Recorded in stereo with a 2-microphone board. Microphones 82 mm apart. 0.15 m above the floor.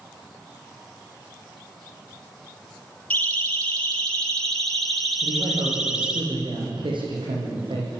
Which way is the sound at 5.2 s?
80° right.